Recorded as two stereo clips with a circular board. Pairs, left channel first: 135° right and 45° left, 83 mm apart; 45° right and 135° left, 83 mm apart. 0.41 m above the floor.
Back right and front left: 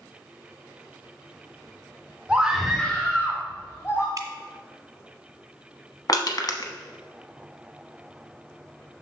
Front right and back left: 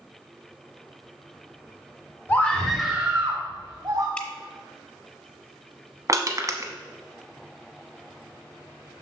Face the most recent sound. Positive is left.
turn(degrees=-175)